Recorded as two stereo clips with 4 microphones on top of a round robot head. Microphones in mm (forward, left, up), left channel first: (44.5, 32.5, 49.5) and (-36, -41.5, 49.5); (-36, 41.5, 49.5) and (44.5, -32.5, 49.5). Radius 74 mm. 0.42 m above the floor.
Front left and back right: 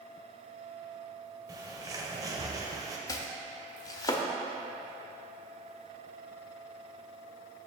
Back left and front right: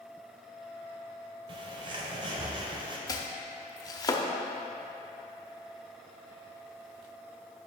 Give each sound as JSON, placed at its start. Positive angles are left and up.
{"t": 1.5, "sound": "a bird", "azimuth_deg": -80, "distance_m": 1.2}
{"t": 3.1, "sound": "chopping", "azimuth_deg": 90, "distance_m": 0.9}